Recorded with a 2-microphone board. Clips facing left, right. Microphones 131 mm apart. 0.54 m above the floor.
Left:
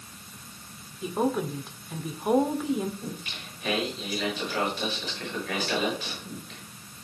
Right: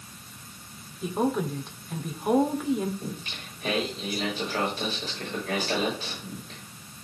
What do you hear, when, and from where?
1.0 s a woman speaking: 5° left (ahead or behind), 1.5 m
3.0 s singing: 30° right (ahead or behind), 6.5 m